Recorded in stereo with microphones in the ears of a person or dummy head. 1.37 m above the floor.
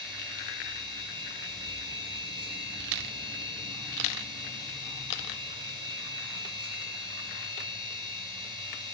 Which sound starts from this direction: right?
A machine running, at 0.0 s.